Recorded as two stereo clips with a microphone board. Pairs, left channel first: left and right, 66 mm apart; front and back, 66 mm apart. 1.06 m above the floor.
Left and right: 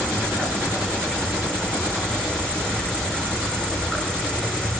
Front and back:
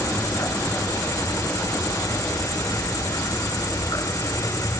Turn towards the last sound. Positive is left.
turn(degrees=15)